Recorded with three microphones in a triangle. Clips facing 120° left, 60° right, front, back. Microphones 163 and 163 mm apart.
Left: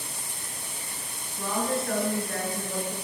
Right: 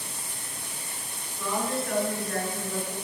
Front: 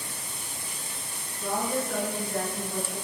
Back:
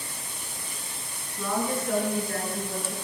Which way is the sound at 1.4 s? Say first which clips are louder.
Left 1 dB, back 1 dB; 165° left.